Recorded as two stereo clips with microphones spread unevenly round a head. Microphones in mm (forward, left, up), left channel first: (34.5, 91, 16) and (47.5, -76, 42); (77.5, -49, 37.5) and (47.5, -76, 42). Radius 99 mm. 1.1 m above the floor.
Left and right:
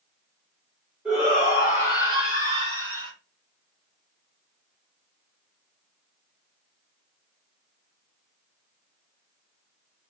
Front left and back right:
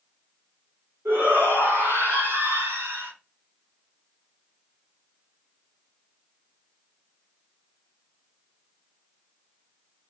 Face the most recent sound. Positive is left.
turn(degrees=-150)